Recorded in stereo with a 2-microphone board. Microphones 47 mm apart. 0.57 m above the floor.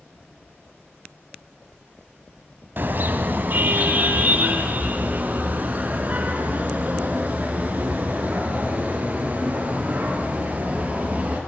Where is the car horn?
50° right (ahead or behind), 2 m; by 11.4 s 30° right (ahead or behind), 6.5 m.